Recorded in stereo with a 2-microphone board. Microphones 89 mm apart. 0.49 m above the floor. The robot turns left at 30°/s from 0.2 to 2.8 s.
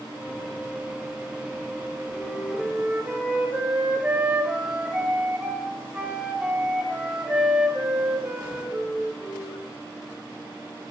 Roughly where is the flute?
Centre.